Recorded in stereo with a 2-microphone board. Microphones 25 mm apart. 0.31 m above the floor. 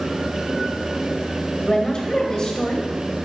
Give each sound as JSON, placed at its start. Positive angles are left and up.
{"t": 1.6, "sound": "a woman speaking", "side_deg": 35, "distance_m": 1.4}